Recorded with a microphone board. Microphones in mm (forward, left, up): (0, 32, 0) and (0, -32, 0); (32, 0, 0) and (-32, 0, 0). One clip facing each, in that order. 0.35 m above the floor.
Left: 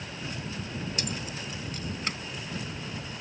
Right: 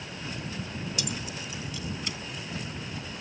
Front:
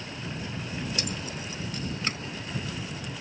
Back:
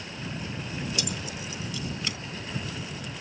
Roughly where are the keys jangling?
Ahead left.